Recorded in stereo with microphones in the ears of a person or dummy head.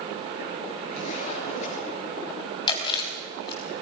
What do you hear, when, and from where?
0.9 s a zipper: 45° left (ahead or behind), 6 m
2.7 s chewing: 30° left (ahead or behind), 3.5 m